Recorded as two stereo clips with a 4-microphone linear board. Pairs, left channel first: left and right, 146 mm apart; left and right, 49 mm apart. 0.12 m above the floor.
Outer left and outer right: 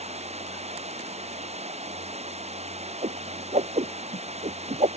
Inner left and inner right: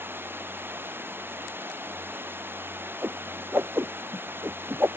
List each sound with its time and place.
0.0 s running water: 45° right (ahead or behind)
3.0 s a whoosh: 45° right (ahead or behind)